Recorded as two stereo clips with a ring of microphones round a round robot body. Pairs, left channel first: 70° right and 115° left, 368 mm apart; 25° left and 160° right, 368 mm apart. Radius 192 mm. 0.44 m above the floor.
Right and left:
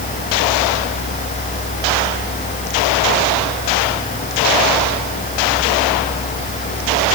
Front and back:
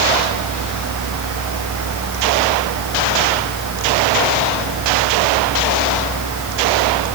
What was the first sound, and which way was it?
Only background noise.